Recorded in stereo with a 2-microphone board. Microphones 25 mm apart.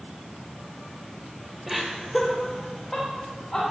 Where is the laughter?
20° right (ahead or behind), 1.1 m; by 3.6 s 20° left (ahead or behind), 2.5 m.